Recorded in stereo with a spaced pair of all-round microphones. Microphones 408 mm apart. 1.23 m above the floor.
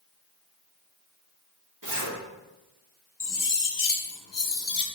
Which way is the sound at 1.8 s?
50° right (ahead or behind).